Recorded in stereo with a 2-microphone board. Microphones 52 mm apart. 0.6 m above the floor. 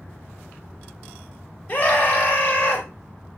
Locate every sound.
1.7 s a scream: 35° left (ahead or behind), 2.5 m